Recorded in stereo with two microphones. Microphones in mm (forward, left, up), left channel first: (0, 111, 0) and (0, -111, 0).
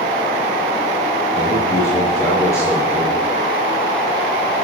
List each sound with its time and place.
1.3 s a man speaking: 15° left (ahead or behind), 5.5 m